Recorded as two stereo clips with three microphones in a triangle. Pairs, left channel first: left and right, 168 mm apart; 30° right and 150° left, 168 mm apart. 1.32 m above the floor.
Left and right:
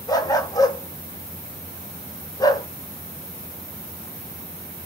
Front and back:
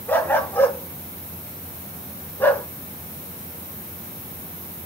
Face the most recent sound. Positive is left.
turn(degrees=40)